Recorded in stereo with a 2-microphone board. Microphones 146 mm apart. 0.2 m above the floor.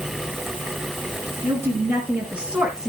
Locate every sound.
1.4 s a woman speaking: 30° right (ahead or behind), 2.5 m; by 2.9 s 20° right (ahead or behind), 1.9 m